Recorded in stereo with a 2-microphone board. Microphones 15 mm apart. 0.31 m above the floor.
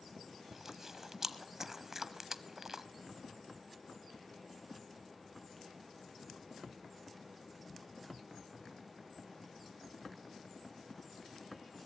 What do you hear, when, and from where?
0.5 s chewing: 25° right (ahead or behind), 1.0 m